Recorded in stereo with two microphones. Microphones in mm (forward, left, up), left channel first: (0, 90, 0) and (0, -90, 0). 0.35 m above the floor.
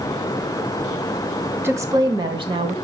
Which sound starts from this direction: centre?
A woman speaking, at 1.6 s.